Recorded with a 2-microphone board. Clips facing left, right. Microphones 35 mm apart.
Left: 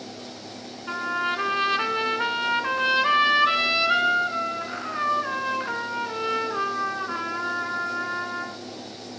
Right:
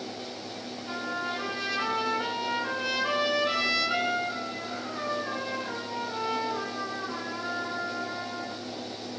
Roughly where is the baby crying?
No baby crying in this recording.